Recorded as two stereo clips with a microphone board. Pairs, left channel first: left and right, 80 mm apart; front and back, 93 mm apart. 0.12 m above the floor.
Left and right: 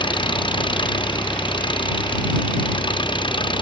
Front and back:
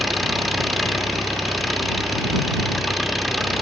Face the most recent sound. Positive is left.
turn(degrees=90)